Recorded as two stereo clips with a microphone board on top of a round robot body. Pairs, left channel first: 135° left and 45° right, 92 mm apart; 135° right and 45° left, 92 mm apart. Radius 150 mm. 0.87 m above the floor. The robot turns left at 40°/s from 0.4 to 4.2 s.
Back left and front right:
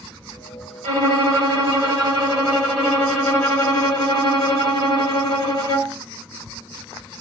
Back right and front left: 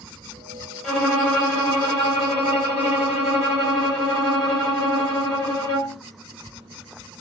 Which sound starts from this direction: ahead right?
A violin, at 0.8 s.